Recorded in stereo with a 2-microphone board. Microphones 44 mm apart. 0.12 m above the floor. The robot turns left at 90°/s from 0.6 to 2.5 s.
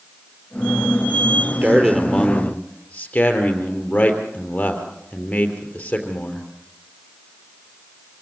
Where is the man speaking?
125° right, 3 m; by 6.5 s 145° left, 3 m.